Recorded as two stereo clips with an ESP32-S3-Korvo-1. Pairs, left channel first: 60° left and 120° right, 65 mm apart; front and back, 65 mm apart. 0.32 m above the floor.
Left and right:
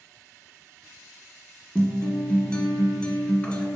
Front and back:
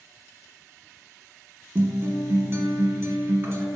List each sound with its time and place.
1.8 s a guitar: 135° left, 1.0 m